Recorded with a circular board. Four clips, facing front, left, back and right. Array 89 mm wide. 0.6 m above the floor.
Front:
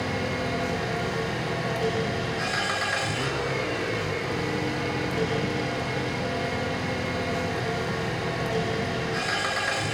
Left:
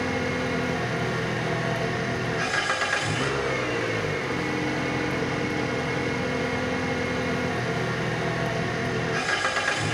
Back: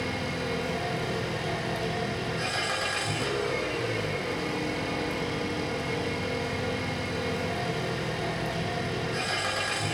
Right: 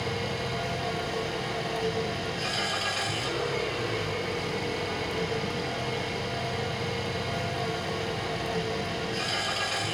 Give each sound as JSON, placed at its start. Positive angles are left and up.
{"t": 0.0, "sound": "an engine running", "azimuth_deg": 75, "distance_m": 6.5}